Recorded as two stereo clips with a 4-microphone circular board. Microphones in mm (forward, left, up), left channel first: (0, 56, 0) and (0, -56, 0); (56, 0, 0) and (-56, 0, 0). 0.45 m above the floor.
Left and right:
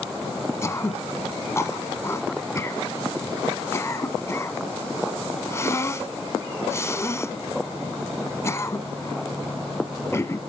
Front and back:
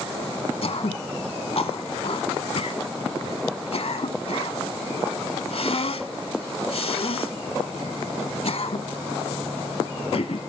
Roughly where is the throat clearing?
Ahead left.